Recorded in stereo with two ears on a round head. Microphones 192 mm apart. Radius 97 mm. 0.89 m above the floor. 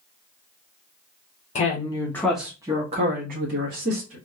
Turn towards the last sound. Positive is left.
turn(degrees=-60)  # may be behind; listen again after turning